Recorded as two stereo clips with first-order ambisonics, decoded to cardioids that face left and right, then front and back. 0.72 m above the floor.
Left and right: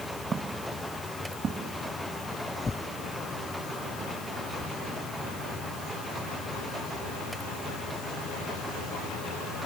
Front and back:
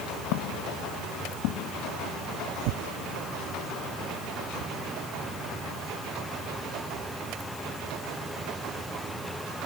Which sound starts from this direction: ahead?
Footsteps, at 0.3 s.